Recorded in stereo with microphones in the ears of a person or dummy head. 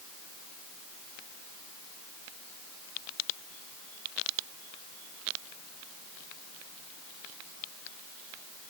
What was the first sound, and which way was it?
Only background noise.